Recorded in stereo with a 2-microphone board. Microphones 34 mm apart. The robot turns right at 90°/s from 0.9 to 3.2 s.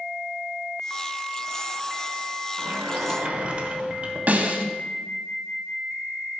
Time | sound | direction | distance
2.6 | a sliding door | 90° right | 1.0 m
4.3 | a snare drum | 50° right (ahead or behind) | 0.8 m